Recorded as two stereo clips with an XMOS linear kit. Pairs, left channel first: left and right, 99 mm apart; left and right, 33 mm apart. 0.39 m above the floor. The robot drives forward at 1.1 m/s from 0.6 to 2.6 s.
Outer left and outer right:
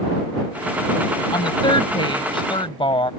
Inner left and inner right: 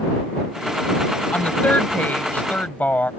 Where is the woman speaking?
50° left (ahead or behind); by 3.1 s 60° left (ahead or behind).